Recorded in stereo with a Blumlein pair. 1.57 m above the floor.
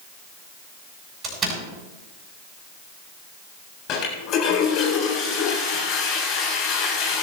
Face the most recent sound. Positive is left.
turn(degrees=35)